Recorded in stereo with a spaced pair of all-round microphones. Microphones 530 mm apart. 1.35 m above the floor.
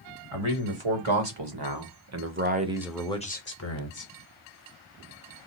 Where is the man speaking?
70° right (ahead or behind), 1.6 m; by 4.1 s 40° left (ahead or behind), 1.1 m.